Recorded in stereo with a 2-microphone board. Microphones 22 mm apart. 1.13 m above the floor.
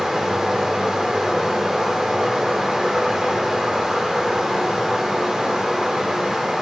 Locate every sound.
0.0 s running water: 35° right (ahead or behind), 1.0 m